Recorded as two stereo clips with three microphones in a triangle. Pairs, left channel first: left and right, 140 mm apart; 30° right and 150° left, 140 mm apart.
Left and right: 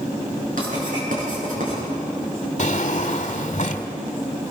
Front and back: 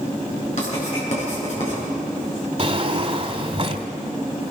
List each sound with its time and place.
0.6 s writing: 65° right, 9 m
2.6 s a drawer: 110° left, 1.5 m